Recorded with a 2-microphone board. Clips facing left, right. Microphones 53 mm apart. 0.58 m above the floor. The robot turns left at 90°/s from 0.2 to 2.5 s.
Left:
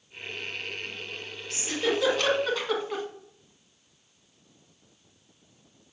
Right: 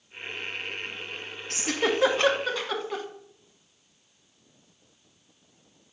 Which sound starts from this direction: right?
A giggle, at 1.5 s.